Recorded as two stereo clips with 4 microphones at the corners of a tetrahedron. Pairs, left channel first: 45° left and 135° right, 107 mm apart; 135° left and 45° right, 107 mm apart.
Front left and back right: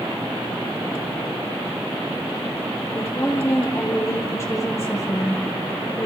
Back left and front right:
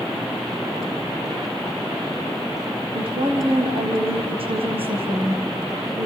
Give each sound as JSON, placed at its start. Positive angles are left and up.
{"t": 3.0, "sound": "a woman speaking", "azimuth_deg": -20, "distance_m": 4.0}